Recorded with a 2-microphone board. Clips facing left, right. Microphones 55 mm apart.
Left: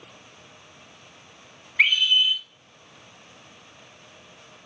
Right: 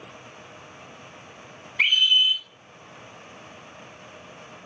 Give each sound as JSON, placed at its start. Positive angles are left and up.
{"t": 1.8, "sound": "a scream", "side_deg": 30, "distance_m": 3.5}